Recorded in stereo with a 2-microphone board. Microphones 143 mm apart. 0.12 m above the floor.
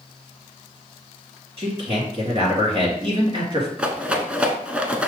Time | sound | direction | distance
1.6 | a man speaking | 45° right (ahead or behind) | 2 m
3.8 | a rattle | 10° right (ahead or behind) | 0.6 m